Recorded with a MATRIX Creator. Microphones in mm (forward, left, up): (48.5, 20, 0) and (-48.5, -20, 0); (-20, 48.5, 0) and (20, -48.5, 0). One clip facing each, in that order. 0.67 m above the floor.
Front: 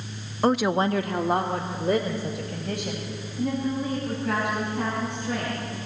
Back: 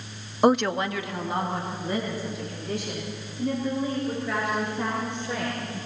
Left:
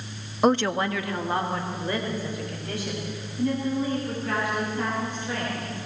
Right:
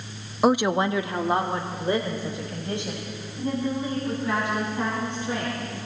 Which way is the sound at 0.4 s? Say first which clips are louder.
Back 1 dB, right 1 dB; 150° right.